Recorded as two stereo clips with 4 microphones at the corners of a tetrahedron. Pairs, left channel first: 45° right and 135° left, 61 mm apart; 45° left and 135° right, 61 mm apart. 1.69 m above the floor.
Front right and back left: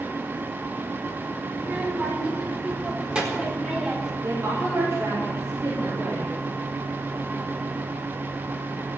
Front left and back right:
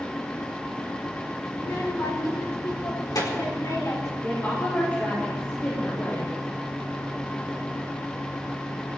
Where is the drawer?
No drawer in this recording.